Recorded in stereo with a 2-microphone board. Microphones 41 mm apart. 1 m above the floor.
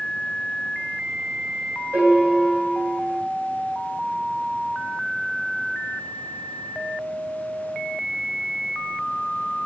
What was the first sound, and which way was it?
A piano, 60° right (ahead or behind).